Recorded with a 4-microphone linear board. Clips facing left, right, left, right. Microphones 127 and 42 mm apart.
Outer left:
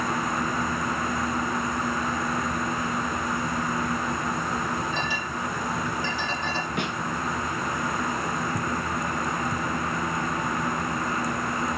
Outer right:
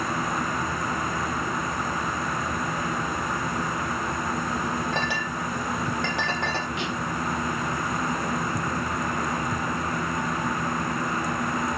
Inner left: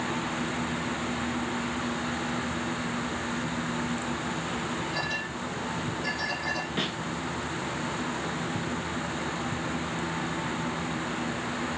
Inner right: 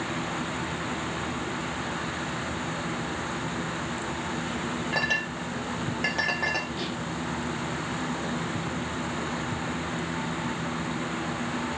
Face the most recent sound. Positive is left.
turn(degrees=60)  # may be behind; listen again after turning